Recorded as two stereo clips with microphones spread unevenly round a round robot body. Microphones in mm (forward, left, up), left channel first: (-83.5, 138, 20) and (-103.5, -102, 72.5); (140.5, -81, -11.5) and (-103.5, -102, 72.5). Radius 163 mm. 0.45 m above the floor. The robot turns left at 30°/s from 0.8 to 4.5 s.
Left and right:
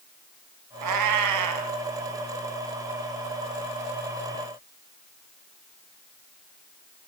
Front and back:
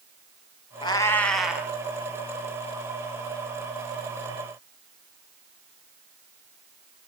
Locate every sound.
0.8 s a cat meowing: 65° right, 2.5 m; by 1.7 s 90° right, 2.5 m